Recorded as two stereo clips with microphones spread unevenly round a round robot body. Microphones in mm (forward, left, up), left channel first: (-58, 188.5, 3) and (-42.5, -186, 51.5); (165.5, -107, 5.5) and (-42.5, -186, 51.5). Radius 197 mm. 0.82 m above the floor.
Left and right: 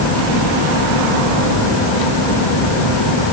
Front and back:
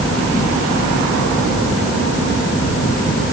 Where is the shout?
No shout in this recording.